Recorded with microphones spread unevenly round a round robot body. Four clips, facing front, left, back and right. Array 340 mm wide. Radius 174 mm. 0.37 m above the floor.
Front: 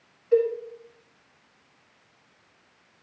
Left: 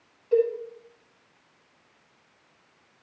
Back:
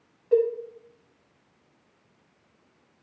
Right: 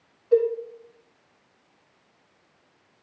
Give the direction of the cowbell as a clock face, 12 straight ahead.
6 o'clock.